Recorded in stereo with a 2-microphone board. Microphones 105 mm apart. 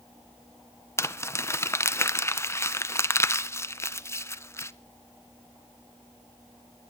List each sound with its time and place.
1.0 s crumpling: 25° left (ahead or behind), 0.5 m